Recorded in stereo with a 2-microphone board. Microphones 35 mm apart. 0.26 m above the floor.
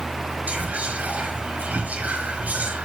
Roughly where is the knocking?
I don't hear knocking.